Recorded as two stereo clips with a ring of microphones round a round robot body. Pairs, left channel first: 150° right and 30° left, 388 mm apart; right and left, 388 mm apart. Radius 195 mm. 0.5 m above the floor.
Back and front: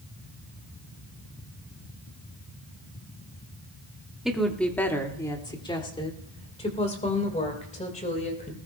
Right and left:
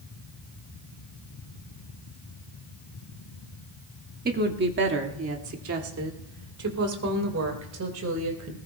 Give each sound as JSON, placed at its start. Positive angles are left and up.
{"t": 4.2, "sound": "a woman speaking", "azimuth_deg": 115, "distance_m": 1.2}